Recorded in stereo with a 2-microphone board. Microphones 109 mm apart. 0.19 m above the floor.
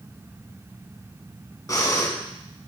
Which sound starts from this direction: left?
Breathing, at 1.7 s.